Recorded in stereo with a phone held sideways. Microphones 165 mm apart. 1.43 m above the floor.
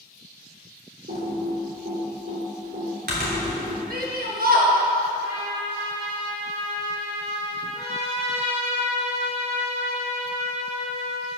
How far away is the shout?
About 1.7 m.